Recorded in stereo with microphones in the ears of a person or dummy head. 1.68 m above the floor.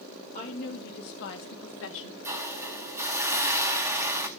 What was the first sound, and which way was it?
A woman speaking, 40° left (ahead or behind).